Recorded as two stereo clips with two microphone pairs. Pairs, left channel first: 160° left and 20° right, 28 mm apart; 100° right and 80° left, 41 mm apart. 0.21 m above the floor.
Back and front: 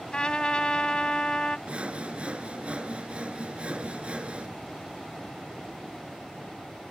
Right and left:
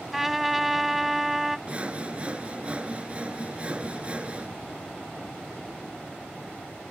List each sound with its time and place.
0.1 s a trumpet: 160° left
1.7 s sawing: 20° left